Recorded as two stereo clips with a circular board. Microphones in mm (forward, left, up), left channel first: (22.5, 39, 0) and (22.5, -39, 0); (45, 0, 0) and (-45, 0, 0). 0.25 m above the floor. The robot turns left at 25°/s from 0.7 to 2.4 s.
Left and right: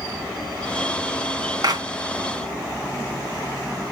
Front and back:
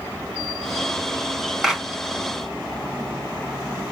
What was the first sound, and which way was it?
A clap, 95° right.